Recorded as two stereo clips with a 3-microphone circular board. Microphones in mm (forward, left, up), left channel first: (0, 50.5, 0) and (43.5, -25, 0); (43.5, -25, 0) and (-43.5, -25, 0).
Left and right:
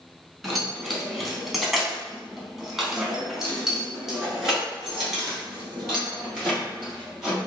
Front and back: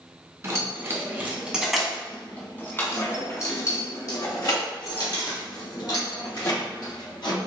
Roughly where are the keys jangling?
Behind right.